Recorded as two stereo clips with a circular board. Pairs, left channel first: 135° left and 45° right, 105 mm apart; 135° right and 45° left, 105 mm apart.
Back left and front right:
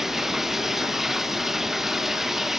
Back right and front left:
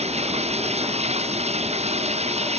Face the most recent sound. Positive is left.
turn(degrees=45)